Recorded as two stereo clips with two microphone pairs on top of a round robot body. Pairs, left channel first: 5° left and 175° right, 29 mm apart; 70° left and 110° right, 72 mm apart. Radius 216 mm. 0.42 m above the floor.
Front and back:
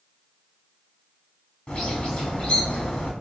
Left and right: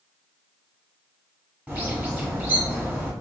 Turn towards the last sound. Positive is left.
turn(degrees=-35)